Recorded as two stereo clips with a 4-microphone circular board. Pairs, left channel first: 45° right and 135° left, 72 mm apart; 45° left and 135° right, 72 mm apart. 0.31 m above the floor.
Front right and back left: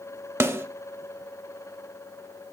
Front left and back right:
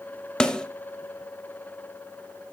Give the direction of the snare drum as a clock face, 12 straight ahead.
8 o'clock.